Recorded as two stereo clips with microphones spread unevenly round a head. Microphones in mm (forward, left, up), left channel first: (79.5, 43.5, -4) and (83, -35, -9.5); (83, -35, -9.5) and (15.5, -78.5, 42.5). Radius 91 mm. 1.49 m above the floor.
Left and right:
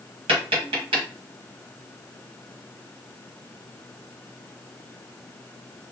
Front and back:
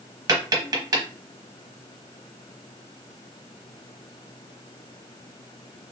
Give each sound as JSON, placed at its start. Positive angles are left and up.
{"t": 0.3, "sound": "tapping", "azimuth_deg": -115, "distance_m": 1.0}